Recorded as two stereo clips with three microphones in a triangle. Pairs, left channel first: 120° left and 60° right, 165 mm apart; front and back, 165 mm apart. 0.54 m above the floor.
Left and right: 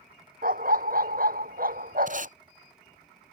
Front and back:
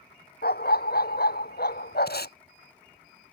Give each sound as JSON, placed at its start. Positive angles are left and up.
{"t": 0.4, "sound": "a dog barking", "azimuth_deg": -25}
{"t": 2.1, "sound": "tape being pulled", "azimuth_deg": -20}